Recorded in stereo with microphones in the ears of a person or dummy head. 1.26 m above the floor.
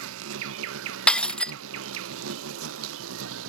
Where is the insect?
75° right (ahead or behind).